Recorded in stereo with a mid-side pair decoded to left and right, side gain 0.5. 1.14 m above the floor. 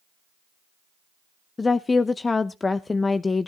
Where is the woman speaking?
25° left, 0.7 m.